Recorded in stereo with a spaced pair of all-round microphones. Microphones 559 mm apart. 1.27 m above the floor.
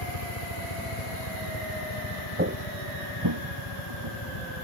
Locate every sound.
0.0 s a helicopter: 75° left (ahead or behind)
2.4 s footsteps: 20° right (ahead or behind); by 4.6 s 60° right (ahead or behind)